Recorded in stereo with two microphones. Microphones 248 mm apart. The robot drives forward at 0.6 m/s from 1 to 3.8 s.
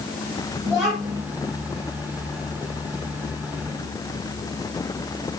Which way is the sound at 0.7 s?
10° right (ahead or behind).